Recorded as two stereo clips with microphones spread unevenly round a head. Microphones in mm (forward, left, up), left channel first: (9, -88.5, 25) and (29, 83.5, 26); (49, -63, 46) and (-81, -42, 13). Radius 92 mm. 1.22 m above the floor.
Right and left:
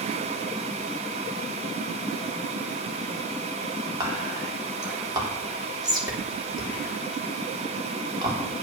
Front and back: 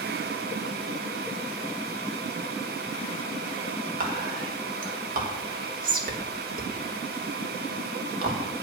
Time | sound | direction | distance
4.0 | whispering | 155° left | 3.5 m